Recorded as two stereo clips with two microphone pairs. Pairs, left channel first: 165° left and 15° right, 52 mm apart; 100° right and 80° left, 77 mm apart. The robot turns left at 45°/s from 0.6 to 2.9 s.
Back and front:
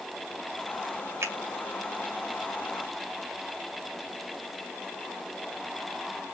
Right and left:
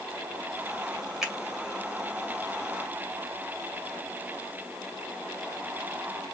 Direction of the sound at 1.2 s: 5° right.